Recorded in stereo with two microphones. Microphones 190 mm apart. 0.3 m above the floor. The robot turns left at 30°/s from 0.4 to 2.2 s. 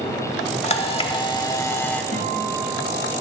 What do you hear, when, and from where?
0.6 s a camera shutter: 55° left, 0.6 m; by 2.0 s 10° left, 0.6 m
2.1 s a guitar: 45° right (ahead or behind), 1.8 m